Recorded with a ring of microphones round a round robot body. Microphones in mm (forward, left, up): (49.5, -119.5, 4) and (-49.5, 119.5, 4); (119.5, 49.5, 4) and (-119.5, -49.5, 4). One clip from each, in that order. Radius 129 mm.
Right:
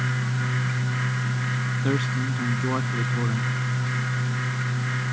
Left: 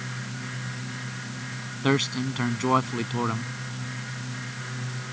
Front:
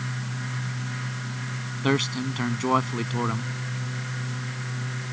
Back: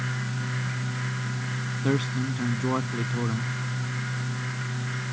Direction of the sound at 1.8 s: 65° left.